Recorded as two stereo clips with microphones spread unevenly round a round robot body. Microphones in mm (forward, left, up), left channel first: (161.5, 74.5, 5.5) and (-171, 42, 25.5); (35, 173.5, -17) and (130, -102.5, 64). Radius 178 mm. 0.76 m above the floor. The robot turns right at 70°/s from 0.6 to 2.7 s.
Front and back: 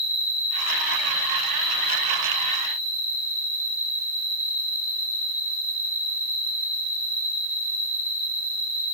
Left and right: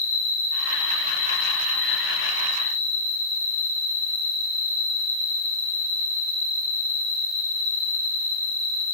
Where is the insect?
65° left, 3 m; by 8.9 s 150° right, 3 m.